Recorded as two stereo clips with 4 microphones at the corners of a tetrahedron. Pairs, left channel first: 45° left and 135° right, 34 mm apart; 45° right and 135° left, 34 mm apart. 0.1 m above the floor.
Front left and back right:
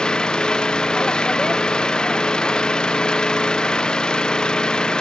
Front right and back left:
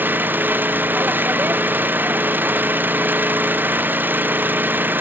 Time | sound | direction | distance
0.0 | an engine running | 115° left | ?